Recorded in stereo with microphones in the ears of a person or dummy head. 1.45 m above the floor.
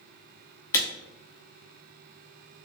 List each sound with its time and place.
0.7 s a camera shutter: 15° left (ahead or behind), 0.6 m